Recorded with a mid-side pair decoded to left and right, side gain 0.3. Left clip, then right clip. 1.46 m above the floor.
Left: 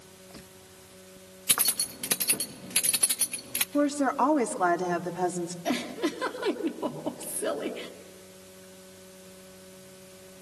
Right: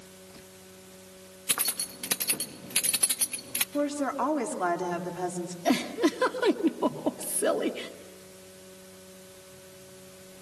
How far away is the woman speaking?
About 3 m.